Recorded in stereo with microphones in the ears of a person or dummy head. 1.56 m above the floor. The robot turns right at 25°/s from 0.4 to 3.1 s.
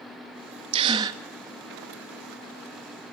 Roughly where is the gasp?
Right.